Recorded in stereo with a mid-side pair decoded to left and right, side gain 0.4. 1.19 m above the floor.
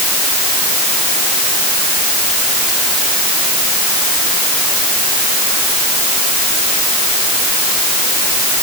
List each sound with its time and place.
Only background noise.